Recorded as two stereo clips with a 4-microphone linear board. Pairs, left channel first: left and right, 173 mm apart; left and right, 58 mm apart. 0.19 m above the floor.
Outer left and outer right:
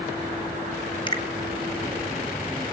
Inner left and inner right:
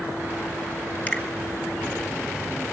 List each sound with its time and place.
1.1 s a finger snap: 25° left (ahead or behind), 1.9 m